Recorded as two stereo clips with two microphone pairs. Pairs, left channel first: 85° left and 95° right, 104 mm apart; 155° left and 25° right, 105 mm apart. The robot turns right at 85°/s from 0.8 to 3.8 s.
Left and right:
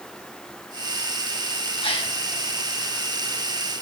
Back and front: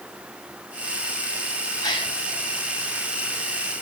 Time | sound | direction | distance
1.8 | a gasp | 100° left | 5 m